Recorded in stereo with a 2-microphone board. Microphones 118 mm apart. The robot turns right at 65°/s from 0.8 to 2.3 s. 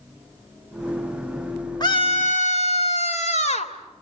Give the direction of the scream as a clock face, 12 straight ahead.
11 o'clock.